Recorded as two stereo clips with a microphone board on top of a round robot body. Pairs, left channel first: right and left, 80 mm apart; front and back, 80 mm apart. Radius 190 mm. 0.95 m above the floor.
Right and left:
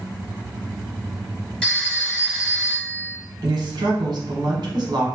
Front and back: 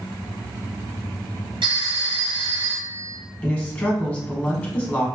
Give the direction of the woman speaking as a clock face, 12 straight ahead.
10 o'clock.